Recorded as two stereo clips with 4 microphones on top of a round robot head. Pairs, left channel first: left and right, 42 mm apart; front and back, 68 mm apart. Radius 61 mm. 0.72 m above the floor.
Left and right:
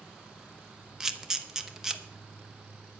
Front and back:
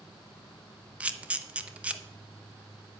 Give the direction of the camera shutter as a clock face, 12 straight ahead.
5 o'clock.